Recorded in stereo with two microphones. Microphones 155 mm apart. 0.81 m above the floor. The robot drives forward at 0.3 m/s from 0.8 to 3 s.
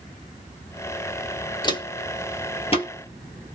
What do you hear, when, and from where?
1.6 s footsteps: 30° left (ahead or behind), 1.0 m; by 2.9 s 35° left (ahead or behind), 1.2 m